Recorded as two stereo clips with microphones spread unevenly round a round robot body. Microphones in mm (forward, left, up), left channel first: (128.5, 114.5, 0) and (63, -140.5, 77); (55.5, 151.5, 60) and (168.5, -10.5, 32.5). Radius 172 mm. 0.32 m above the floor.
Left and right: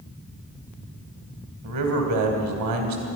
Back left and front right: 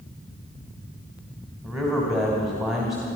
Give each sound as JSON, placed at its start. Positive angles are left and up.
{"t": 1.6, "sound": "a man speaking", "azimuth_deg": -140, "distance_m": 2.0}